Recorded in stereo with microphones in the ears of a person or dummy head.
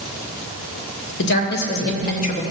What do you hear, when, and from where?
1.2 s a woman speaking: 60° left (ahead or behind), 1.2 m; by 2.4 s 35° left (ahead or behind), 1.6 m